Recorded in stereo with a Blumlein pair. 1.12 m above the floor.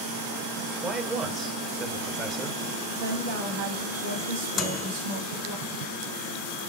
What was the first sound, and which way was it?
A man speaking, 15° right.